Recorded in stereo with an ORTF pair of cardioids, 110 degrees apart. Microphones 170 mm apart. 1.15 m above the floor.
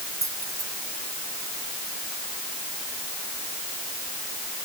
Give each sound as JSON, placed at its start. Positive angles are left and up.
{"t": 0.2, "sound": "keys jangling", "azimuth_deg": -20}